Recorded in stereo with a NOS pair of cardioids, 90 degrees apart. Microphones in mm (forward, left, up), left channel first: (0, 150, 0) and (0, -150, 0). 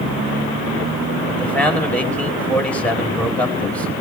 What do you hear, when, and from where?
1.3 s a man speaking: 5° left, 4.5 m